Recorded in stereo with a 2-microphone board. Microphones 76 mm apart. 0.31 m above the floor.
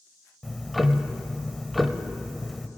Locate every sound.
0.4 s ticking: centre (ahead or behind), 0.6 m